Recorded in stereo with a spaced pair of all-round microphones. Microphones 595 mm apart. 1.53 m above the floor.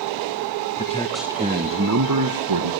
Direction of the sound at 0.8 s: 15° left (ahead or behind).